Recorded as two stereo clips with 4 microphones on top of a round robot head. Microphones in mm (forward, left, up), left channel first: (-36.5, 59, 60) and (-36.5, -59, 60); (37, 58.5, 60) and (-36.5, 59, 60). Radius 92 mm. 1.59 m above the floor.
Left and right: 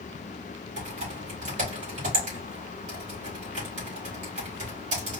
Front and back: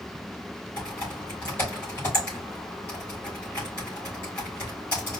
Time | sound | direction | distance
0.8 | typing on a keyboard | 70° right | 3.5 m